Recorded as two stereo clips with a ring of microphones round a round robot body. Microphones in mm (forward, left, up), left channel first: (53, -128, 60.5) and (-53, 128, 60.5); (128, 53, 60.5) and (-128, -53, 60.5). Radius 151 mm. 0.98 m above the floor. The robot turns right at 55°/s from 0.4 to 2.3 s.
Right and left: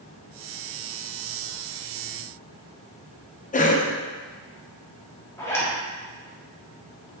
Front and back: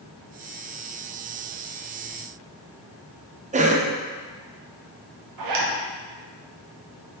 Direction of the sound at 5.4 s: 150° right.